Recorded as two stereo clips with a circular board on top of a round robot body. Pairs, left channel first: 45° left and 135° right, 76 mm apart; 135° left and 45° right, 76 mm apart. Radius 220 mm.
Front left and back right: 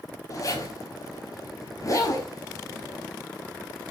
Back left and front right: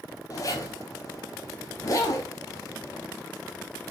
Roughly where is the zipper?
Left.